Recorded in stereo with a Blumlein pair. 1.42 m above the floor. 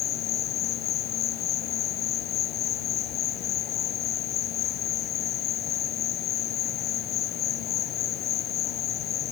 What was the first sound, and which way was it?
An insect, 35° left.